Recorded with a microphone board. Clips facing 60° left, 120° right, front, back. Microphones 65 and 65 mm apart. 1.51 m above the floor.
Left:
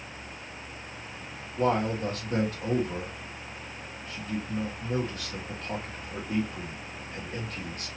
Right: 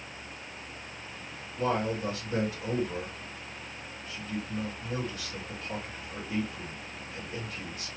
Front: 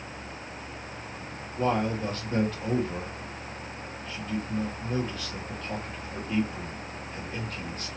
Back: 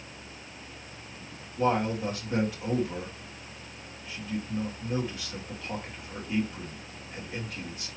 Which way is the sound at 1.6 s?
100° left.